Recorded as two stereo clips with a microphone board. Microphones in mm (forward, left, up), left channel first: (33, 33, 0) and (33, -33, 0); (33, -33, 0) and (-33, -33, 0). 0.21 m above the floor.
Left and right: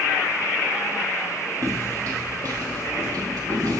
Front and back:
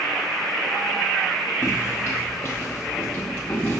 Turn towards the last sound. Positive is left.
turn(degrees=-65)